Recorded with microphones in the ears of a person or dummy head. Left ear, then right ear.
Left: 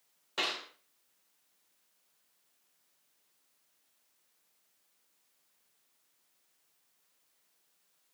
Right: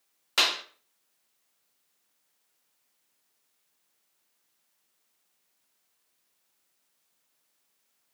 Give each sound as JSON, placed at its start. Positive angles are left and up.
{"t": 0.4, "sound": "a clap", "side_deg": -60, "distance_m": 1.3}